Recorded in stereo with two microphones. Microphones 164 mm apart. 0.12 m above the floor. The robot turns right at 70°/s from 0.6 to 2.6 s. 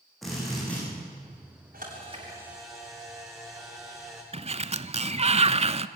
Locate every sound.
0.2 s a drill: centre (ahead or behind), 9 m; by 0.8 s 15° left (ahead or behind), 9 m
1.7 s a camera shutter: 65° right, 8.5 m; by 4.2 s 5° right, 8.5 m
4.3 s a sliding door: 40° right (ahead or behind), 0.5 m